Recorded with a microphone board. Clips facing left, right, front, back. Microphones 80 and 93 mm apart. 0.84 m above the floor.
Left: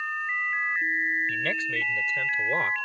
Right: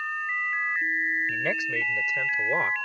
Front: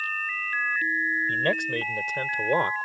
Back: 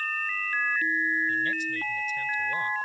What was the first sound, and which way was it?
A man speaking, 15° right.